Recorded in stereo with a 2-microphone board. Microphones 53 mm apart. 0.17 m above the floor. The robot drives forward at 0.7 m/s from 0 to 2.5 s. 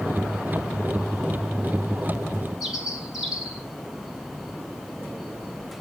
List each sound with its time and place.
2.6 s a bird: centre (ahead or behind), 3 m